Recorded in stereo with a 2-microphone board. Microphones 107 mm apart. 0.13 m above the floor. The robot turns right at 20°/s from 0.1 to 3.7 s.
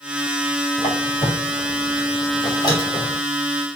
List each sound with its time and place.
0.8 s a squeak: 75° left (ahead or behind), 3.5 m; by 3.2 s 30° left (ahead or behind), 3.5 m